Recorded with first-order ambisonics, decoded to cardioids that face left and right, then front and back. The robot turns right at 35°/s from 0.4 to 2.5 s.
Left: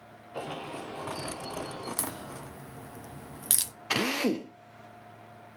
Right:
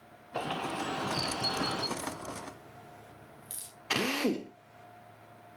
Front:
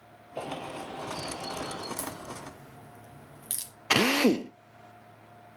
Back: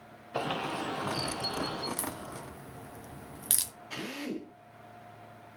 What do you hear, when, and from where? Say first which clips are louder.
0.3 s a bird: right 3 dB, back 4 dB; 160° right, 3 m; by 1.9 s 105° right, 3 m
2.0 s a crack: even, front 1 dB; 95° left, 1.1 m; by 3.7 s 115° left, 1.1 m
3.9 s a drill: left 2 dB, front 17 dB; 10° left, 1.1 m